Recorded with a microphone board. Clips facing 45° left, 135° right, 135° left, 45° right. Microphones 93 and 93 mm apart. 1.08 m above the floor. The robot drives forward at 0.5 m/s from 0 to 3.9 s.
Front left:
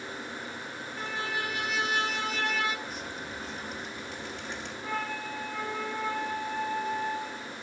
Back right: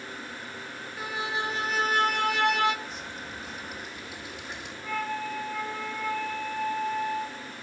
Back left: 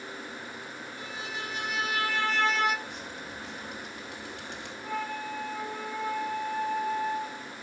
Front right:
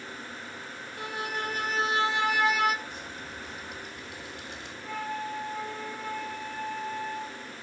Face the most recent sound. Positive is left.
turn(degrees=125)